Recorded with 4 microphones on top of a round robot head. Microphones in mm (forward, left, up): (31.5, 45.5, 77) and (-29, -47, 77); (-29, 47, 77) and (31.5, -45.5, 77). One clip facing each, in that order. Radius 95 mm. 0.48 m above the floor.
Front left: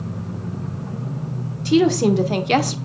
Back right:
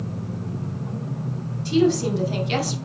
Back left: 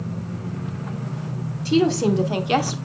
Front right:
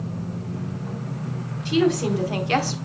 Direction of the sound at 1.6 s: 75° left.